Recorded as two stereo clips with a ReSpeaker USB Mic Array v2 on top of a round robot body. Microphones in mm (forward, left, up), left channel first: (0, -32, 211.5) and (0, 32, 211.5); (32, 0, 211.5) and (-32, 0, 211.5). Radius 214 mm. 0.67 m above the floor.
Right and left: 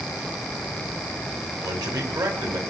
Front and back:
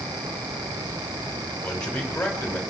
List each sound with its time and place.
1.6 s a man speaking: 75° left, 6 m